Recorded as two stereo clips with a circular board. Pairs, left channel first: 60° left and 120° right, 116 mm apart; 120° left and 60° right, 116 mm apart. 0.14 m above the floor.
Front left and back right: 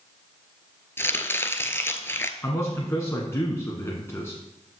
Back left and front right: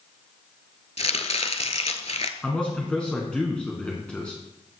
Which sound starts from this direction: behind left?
Chopping, at 1.0 s.